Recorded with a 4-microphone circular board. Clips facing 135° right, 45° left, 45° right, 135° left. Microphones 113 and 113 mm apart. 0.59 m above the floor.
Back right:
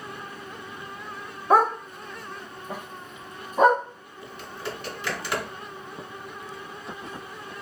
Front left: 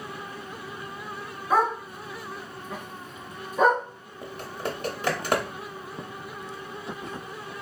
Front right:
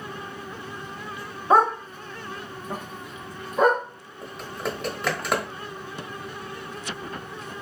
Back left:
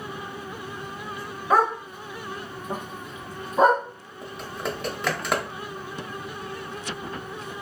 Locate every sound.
1.5 s a dog barking: 110° right, 0.7 m; by 3.8 s 175° right, 1.3 m
4.2 s typing on a keyboard: 45° left, 0.8 m